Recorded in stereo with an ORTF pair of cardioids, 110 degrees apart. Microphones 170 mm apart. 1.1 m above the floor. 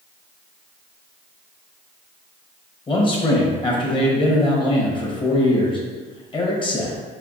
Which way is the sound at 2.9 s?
30° left.